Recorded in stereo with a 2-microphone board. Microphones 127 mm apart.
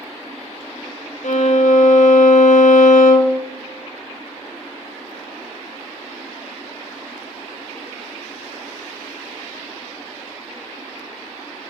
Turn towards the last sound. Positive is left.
turn(degrees=70)  # may be behind; listen again after turning